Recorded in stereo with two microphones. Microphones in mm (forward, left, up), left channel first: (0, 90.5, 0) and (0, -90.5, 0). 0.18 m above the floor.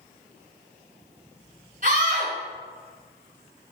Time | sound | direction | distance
1.8 | a scream | 50° right (ahead or behind) | 1.9 m